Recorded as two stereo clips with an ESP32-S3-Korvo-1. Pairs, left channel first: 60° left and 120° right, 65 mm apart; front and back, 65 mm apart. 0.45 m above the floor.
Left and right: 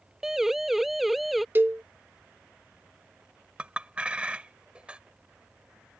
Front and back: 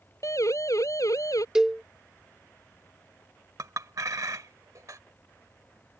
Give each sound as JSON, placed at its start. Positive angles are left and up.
{"t": 0.2, "sound": "a siren", "azimuth_deg": -35}
{"t": 1.6, "sound": "a cowbell", "azimuth_deg": -105}
{"t": 3.6, "sound": "a clink", "azimuth_deg": 170}